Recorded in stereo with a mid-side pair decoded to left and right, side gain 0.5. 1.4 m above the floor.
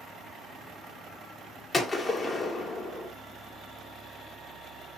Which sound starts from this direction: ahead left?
A gunshot, at 1.7 s.